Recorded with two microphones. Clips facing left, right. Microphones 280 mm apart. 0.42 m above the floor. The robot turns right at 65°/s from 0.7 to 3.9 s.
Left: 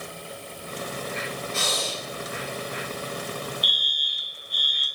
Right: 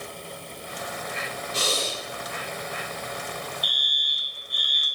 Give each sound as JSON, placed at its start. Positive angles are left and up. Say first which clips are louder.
{"t": 1.5, "sound": "breathing", "louder": "right 5 dB", "azimuth_deg": -60, "distance_m": 1.9}
{"t": 3.6, "sound": "a fire alarm", "louder": "left 1 dB", "side_deg": -60, "distance_m": 5.0}